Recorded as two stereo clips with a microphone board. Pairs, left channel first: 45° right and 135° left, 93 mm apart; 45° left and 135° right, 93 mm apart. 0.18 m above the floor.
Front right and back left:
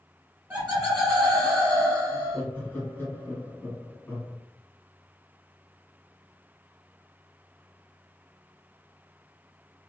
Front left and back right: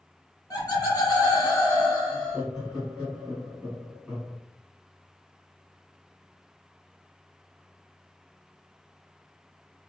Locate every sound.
0.5 s laughter: 65° left, 1.6 m; by 2.4 s 5° left, 1.6 m
2.1 s laughter: 65° right, 1.6 m